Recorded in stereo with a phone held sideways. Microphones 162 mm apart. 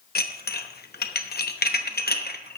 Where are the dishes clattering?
80° left, 0.9 m.